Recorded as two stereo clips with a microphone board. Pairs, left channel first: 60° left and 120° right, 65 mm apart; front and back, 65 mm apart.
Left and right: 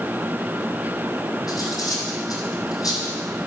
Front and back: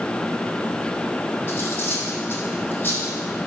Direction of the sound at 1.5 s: 55° left.